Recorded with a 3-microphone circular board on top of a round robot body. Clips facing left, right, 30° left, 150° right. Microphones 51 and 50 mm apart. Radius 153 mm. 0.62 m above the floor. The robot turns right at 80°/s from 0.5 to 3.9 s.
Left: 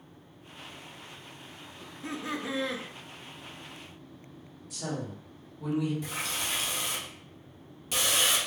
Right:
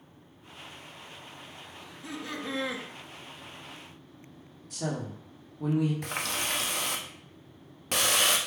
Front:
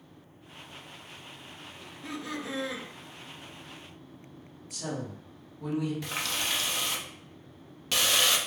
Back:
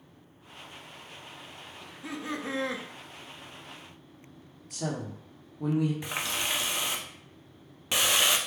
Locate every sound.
1.8 s laughter: 115° left, 0.9 m; by 2.9 s 160° right, 0.9 m
4.7 s a woman speaking: 120° right, 1.3 m
6.0 s a running tap: 80° right, 0.6 m